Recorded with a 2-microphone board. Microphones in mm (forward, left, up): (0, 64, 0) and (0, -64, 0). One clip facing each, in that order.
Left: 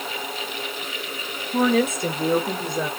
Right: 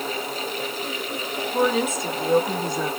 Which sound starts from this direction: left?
A woman speaking, at 1.5 s.